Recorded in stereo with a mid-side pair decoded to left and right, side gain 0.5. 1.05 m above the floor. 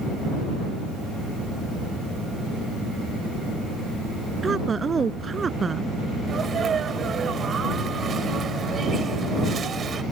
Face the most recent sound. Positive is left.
turn(degrees=-45)